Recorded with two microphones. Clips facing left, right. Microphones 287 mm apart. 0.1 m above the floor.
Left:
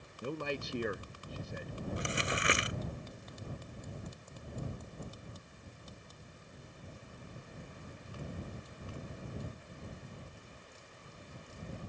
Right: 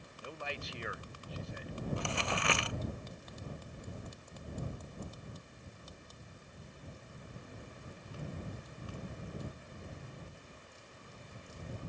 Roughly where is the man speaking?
Left.